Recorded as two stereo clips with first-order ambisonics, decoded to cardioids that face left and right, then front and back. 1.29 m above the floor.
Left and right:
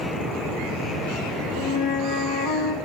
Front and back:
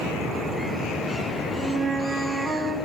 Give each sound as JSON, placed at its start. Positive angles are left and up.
{"t": 1.6, "sound": "a flute", "azimuth_deg": 110, "distance_m": 2.5}